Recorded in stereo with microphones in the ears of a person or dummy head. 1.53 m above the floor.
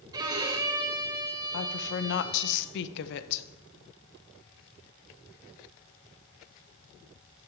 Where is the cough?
No cough in this recording.